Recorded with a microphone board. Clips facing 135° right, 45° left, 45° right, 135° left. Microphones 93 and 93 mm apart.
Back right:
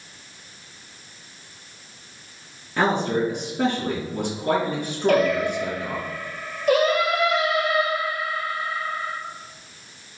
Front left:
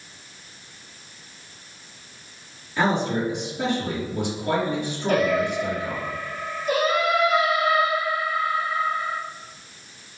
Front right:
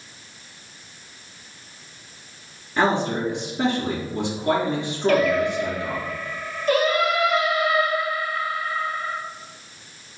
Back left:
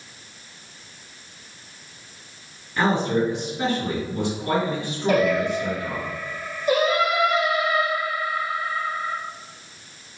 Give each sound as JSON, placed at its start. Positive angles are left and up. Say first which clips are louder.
{"t": 2.8, "sound": "a man speaking", "louder": "back right 1 dB, even", "azimuth_deg": -110, "distance_m": 3.0}
{"t": 5.1, "sound": "singing", "louder": "back right 2 dB, even", "azimuth_deg": -150, "distance_m": 1.9}